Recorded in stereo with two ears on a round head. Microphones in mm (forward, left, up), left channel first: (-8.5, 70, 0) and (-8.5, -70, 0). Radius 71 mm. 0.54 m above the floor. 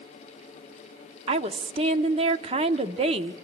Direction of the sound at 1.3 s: 40° right (ahead or behind).